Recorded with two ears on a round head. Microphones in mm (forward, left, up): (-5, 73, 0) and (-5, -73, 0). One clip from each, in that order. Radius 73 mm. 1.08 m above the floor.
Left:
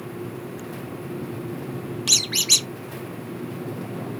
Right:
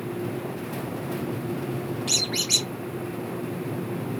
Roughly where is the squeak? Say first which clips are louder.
Left 5 dB; left.